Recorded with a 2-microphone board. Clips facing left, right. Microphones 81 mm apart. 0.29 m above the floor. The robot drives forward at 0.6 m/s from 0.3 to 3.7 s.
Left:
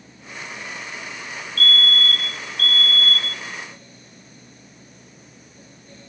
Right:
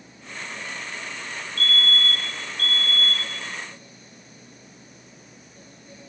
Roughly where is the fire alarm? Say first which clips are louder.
Left 3 dB; right.